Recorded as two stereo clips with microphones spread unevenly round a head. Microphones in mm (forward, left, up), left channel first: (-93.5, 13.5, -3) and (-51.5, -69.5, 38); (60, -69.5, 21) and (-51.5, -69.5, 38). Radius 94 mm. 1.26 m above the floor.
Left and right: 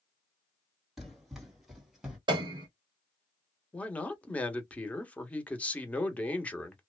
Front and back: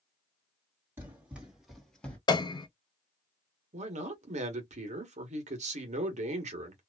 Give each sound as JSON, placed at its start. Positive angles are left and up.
{"t": 1.0, "sound": "running footsteps", "azimuth_deg": -125, "distance_m": 1.8}
{"t": 2.3, "sound": "a piano", "azimuth_deg": -50, "distance_m": 0.6}
{"t": 3.7, "sound": "a man speaking", "azimuth_deg": -170, "distance_m": 1.2}